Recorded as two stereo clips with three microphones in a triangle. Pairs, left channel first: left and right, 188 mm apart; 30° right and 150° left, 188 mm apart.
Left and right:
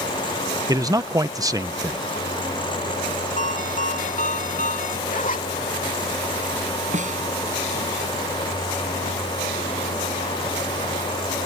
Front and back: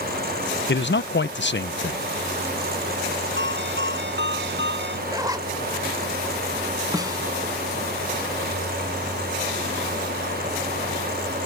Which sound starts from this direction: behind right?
A snare drum, at 6.9 s.